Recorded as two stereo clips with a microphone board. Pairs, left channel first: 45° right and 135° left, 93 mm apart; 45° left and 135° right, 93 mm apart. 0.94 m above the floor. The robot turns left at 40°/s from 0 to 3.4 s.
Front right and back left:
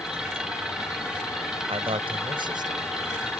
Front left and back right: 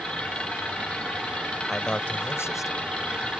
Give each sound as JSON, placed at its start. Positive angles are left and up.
{"t": 1.7, "sound": "a man speaking", "azimuth_deg": 135}